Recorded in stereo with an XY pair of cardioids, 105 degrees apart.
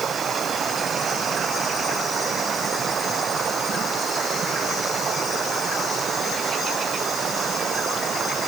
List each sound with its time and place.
0.0 s running water: 50° right